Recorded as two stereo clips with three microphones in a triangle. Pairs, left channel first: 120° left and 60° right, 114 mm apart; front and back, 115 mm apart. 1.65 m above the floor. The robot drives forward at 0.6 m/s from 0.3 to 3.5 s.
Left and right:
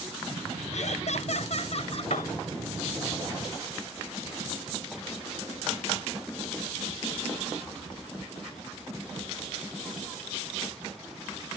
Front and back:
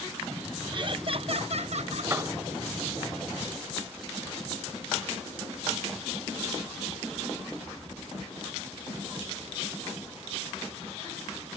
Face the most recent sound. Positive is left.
turn(degrees=120)